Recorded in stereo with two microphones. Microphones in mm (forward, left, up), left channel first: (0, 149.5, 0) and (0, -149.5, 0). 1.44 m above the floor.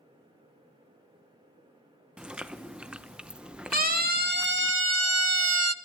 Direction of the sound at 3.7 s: 30° right (ahead or behind).